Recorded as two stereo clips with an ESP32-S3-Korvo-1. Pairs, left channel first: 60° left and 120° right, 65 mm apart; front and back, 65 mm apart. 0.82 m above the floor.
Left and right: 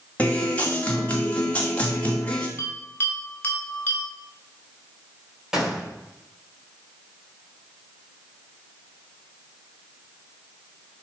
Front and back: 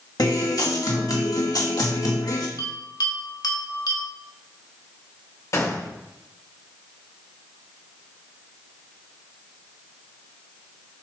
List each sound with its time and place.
0.2 s a guitar: 10° right, 2.0 m
2.6 s a bell: straight ahead, 2.5 m
5.5 s a gunshot: 40° right, 3 m